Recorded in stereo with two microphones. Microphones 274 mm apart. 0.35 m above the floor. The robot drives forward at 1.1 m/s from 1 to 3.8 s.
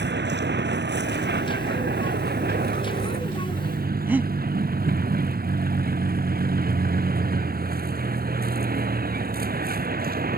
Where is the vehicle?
40° right (ahead or behind); by 10.4 s 35° right (ahead or behind).